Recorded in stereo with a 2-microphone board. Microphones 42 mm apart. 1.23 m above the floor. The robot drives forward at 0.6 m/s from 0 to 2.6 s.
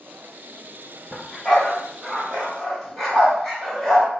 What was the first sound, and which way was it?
A dog barking, 15° left (ahead or behind).